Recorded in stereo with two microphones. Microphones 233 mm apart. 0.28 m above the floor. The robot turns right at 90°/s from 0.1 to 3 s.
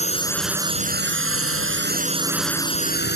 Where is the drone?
150° left; by 3.2 s 50° left.